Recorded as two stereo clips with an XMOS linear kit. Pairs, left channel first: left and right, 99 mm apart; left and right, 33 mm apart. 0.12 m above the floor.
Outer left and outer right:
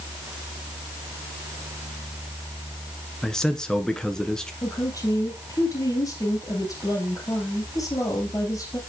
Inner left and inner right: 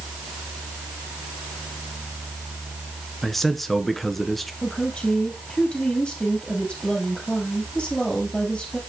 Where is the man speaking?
5° left (ahead or behind), 1.4 m.